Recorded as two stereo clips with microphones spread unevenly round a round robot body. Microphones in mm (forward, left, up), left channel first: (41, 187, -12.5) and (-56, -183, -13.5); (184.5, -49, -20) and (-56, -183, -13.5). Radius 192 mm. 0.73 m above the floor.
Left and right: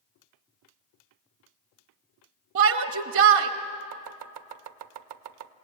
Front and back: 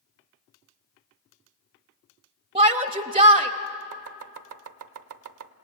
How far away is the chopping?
About 0.7 m.